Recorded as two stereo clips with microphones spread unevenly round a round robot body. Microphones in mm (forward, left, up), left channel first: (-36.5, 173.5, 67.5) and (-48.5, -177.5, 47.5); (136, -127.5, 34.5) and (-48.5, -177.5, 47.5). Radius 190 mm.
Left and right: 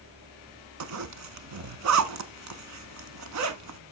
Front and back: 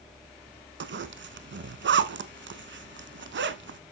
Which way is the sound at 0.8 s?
140° right.